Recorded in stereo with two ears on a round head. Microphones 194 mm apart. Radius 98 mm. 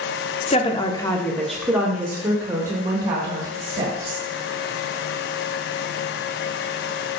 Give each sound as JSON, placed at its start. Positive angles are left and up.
{"t": 0.5, "sound": "a woman speaking", "side_deg": 30, "distance_m": 0.7}